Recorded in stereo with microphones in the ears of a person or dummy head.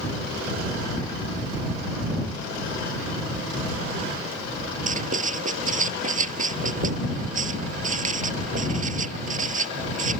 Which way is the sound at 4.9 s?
45° right (ahead or behind).